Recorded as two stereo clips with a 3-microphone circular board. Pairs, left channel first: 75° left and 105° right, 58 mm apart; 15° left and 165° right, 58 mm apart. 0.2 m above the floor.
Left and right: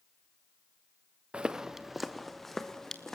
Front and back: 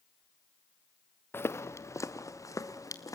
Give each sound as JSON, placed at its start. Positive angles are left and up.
{"t": 1.3, "sound": "footsteps", "azimuth_deg": -35, "distance_m": 0.8}